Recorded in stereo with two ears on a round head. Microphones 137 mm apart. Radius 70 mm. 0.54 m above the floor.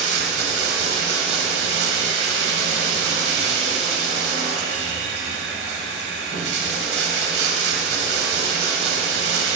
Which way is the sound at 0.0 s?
75° right (ahead or behind).